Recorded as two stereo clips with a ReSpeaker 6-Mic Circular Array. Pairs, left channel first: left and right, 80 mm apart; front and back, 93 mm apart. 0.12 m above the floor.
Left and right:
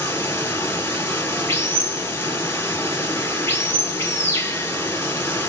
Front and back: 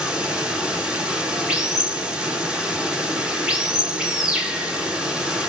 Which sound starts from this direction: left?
Running water, at 0.0 s.